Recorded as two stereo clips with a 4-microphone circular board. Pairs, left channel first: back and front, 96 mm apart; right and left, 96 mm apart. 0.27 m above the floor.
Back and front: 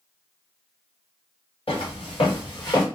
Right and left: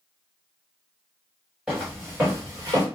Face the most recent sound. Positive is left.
turn(degrees=135)